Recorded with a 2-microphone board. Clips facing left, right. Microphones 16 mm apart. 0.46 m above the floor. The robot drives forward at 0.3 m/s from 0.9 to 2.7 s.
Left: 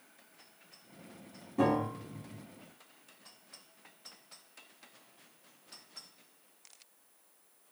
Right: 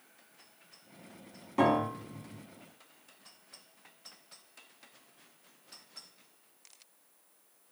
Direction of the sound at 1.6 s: 65° right (ahead or behind).